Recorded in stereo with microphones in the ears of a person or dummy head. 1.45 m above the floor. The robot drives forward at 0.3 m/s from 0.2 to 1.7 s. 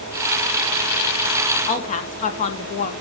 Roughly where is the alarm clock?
No alarm clock in this recording.